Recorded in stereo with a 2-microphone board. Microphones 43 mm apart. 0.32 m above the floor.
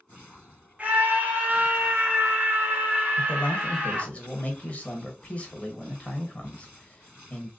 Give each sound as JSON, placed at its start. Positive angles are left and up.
{"t": 0.8, "sound": "a scream", "side_deg": -35, "distance_m": 1.5}
{"t": 3.2, "sound": "a man speaking", "side_deg": 30, "distance_m": 1.1}